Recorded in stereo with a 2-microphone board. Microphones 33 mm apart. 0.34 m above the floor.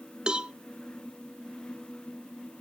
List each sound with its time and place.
0.3 s a cowbell: 25° right (ahead or behind), 0.5 m